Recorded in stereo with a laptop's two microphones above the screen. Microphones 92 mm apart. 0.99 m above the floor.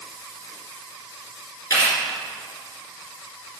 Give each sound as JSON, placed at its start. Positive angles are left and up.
{"t": 1.7, "sound": "a camera shutter", "side_deg": 35, "distance_m": 3.0}